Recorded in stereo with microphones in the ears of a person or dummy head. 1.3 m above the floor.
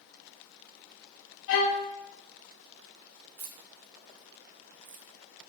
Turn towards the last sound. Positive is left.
turn(degrees=-50)  # may be behind; listen again after turning